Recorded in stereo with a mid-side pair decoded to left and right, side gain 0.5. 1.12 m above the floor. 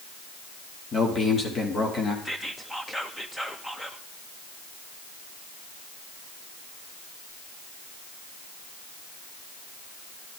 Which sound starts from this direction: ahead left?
A man speaking, at 0.9 s.